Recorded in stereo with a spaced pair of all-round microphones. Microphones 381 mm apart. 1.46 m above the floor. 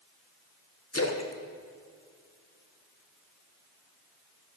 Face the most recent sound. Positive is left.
turn(degrees=40)  # may be behind; listen again after turning